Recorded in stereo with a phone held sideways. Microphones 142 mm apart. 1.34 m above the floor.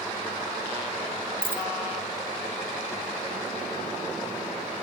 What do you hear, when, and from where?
1.4 s a dropped coin: 15° right (ahead or behind)